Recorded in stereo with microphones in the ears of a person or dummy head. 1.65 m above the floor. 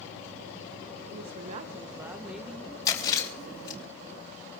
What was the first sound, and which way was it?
A woman speaking, 65° right (ahead or behind).